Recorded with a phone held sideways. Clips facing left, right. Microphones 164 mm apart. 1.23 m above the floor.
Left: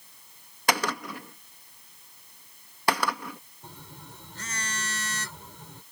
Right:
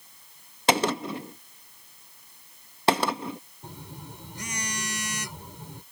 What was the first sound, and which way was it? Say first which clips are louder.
A gunshot: right 4 dB; 25° right (ahead or behind).